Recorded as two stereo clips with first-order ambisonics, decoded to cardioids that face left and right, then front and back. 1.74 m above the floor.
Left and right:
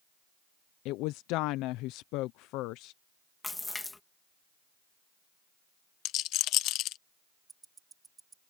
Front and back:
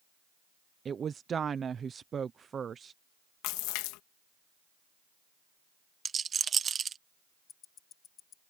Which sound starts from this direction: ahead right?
Ticking, at 7.5 s.